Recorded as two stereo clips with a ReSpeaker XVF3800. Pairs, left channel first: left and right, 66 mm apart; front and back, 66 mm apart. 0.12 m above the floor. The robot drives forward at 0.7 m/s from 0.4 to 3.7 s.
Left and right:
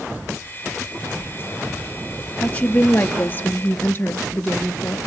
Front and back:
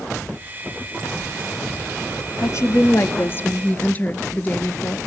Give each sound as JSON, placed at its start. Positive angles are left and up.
{"t": 2.4, "sound": "a woman speaking", "azimuth_deg": 25, "distance_m": 2.0}